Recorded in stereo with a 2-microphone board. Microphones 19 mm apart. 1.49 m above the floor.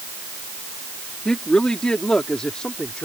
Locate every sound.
1.2 s a woman speaking: 45° left (ahead or behind); by 3.0 s 50° left (ahead or behind)